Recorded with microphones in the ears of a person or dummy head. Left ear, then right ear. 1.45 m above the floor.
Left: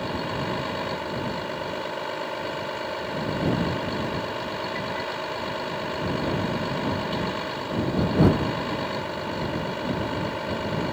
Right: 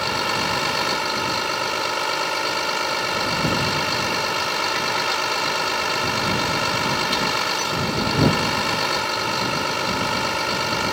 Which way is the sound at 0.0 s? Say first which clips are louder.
Right 7 dB; 60° right (ahead or behind).